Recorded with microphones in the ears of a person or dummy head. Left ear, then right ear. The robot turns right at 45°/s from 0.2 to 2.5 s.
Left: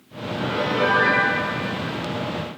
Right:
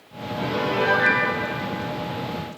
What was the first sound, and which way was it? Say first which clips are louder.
A piano: left 1 dB; 35° right.